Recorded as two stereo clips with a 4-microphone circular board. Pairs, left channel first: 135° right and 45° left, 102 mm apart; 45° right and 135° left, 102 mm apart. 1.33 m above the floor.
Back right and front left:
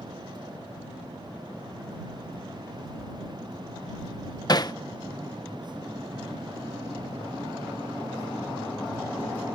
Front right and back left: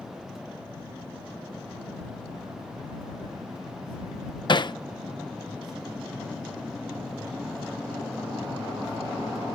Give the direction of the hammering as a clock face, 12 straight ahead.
3 o'clock.